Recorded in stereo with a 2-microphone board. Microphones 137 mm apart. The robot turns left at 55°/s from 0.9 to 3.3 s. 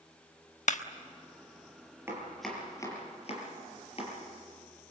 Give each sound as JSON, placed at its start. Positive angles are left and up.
{"t": 0.7, "sound": "a clap", "side_deg": 65, "distance_m": 1.1}
{"t": 2.1, "sound": "chopping", "side_deg": -20, "distance_m": 5.5}